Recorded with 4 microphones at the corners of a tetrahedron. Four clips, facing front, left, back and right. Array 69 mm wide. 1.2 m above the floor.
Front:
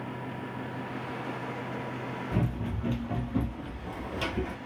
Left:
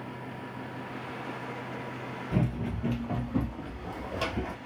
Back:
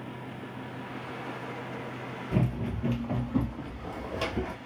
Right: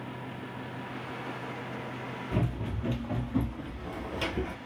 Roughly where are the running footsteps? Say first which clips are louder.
Left 3 dB, back 4 dB; behind left.